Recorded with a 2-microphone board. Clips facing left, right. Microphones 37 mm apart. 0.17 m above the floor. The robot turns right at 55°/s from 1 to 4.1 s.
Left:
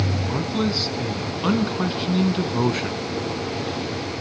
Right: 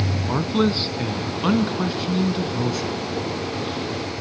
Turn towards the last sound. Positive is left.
turn(degrees=135)